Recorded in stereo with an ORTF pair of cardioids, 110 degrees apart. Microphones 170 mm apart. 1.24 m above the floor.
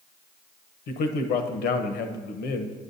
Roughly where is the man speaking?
Left.